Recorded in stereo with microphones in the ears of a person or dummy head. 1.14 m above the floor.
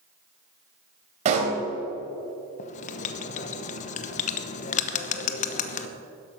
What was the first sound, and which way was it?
A pop, 35° right (ahead or behind).